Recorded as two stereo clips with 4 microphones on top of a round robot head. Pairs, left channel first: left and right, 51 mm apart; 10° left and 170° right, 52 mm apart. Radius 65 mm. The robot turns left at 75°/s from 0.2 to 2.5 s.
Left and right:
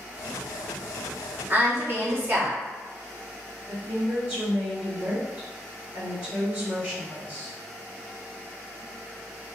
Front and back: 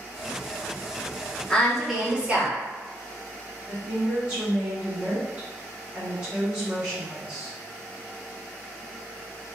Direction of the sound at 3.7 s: 125° right.